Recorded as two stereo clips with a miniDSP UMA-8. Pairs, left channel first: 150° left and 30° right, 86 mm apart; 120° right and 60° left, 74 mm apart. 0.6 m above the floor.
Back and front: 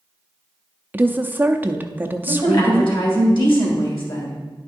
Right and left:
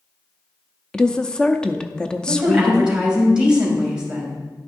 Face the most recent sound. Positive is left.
turn(degrees=135)